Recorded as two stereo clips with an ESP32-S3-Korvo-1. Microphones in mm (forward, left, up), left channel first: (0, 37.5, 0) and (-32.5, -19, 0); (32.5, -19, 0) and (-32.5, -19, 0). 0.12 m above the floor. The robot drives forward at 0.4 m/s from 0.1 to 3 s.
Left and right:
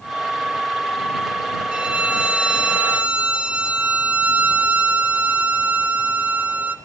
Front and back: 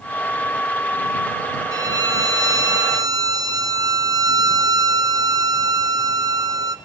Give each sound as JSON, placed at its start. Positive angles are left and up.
{"t": 1.7, "sound": "a violin", "azimuth_deg": 165, "distance_m": 1.2}